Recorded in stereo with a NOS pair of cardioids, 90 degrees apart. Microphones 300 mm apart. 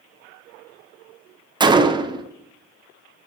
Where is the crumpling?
No crumpling in this recording.